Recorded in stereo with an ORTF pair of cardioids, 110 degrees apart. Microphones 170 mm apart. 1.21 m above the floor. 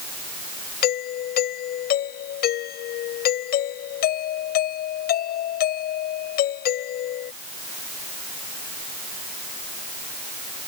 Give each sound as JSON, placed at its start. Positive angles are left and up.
{"t": 0.8, "sound": "a doorbell", "azimuth_deg": 65}